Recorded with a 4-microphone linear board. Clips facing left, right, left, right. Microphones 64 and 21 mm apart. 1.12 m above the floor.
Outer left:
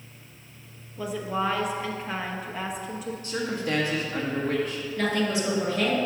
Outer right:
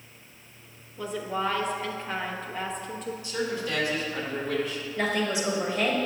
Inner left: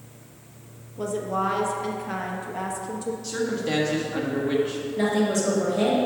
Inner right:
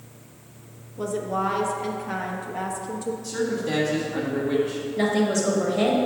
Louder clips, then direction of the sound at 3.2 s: Outer left 1 dB, even; 45° left (ahead or behind).